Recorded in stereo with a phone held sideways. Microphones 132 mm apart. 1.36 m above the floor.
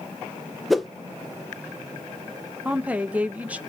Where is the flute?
I don't hear a flute.